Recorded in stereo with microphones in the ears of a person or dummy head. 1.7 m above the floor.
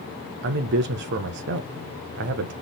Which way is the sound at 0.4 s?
55° right (ahead or behind).